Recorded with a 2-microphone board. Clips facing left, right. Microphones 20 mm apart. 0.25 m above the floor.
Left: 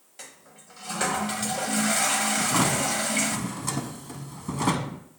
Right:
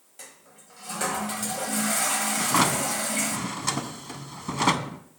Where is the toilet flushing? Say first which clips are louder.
Left 2 dB; 25° left (ahead or behind), 1.1 m.